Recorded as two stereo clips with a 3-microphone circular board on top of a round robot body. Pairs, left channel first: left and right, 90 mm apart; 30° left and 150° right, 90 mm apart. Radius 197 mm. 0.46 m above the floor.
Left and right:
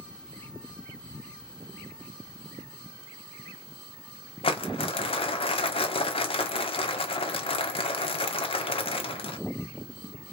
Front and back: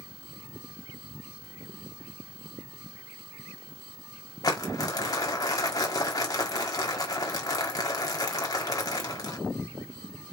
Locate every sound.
4.4 s crumpling: 80° left, 1.3 m